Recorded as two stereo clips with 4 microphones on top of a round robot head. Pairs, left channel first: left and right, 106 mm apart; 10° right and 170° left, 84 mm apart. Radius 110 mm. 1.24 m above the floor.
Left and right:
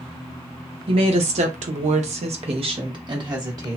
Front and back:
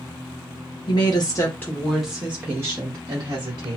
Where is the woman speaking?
50° right, 0.7 m; by 3.8 s 145° right, 1.3 m.